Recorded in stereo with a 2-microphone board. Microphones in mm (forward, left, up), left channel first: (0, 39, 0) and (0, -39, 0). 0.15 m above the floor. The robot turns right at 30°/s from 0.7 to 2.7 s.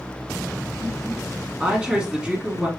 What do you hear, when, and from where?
1.6 s a woman speaking: 20° right (ahead or behind), 1.5 m; by 2.7 s 10° right (ahead or behind), 1.5 m